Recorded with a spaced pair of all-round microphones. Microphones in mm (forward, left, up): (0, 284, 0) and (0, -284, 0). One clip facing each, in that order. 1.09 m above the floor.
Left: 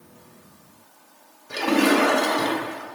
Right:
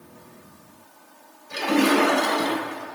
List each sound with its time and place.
1.5 s a splash: 65° left (ahead or behind), 1.9 m